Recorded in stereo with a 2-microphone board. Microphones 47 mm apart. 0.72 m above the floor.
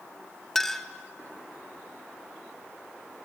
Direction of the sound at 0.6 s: 5° left (ahead or behind).